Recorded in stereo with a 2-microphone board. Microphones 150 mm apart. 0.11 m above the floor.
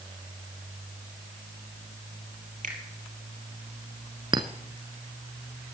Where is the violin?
I don't hear a violin.